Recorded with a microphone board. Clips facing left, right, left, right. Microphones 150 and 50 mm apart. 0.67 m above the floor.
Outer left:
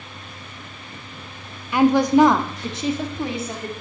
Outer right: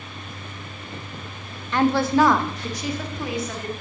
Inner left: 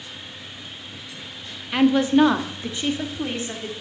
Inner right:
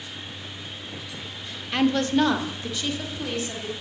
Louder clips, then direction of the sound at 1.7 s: Outer left 4 dB, inner left 4 dB; 10° left (ahead or behind).